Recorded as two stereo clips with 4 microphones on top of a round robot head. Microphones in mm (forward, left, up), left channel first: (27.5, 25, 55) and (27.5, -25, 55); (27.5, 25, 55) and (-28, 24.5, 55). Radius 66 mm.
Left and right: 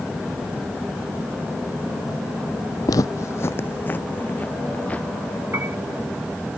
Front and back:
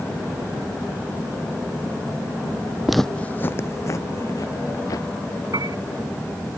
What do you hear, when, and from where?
2.9 s footsteps: 95° left; by 5.1 s 25° left
5.5 s a piano: 150° right